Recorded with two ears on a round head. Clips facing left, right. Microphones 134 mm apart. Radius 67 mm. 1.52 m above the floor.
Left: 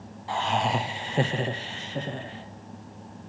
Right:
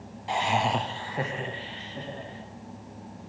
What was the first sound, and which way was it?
Laughter, 25° right (ahead or behind).